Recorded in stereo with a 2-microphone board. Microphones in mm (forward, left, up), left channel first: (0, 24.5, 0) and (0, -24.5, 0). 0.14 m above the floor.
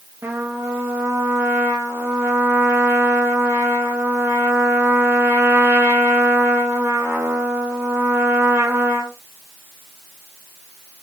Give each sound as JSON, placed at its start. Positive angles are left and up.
{"t": 0.2, "sound": "a trumpet", "side_deg": -55, "distance_m": 5.0}